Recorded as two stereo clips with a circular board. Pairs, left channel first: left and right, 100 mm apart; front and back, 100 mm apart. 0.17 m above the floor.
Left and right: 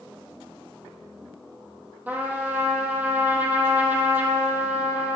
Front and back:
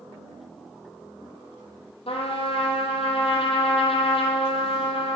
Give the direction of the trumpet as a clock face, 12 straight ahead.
1 o'clock.